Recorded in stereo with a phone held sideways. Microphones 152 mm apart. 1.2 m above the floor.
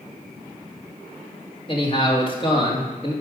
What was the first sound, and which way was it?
A man speaking, 35° left (ahead or behind).